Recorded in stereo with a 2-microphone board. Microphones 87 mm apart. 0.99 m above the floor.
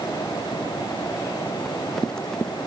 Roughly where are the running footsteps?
Centre.